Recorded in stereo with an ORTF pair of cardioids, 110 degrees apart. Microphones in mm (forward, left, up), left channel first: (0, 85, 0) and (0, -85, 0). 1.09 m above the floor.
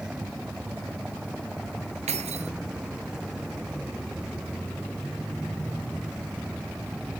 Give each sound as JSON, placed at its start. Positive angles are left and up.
{"t": 0.0, "sound": "a vehicle", "azimuth_deg": -5}
{"t": 2.1, "sound": "keys jangling", "azimuth_deg": -40}